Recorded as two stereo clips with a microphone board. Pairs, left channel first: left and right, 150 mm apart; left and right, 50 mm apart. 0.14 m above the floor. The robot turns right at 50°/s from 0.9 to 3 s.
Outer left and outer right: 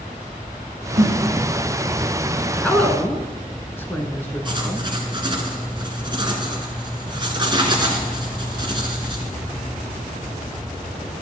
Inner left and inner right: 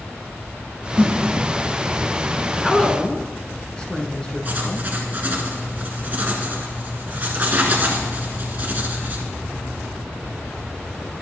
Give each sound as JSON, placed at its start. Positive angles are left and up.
{"t": 1.0, "sound": "a snare drum", "side_deg": -65, "distance_m": 3.5}
{"t": 2.6, "sound": "a woman speaking", "side_deg": 5, "distance_m": 1.3}
{"t": 4.5, "sound": "writing", "side_deg": -30, "distance_m": 1.6}